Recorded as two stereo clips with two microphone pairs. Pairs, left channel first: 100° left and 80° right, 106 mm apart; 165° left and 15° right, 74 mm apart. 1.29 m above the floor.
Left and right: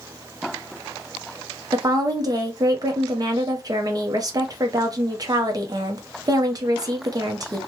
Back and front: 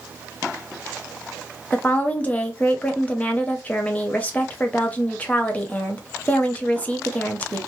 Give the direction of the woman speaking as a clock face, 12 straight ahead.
4 o'clock.